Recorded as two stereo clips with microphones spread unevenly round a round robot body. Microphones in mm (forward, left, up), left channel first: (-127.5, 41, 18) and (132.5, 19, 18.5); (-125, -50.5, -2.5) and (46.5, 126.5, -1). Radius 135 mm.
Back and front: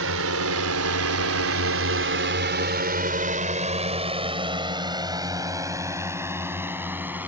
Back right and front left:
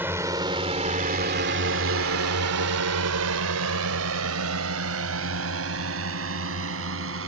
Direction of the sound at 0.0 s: 35° right.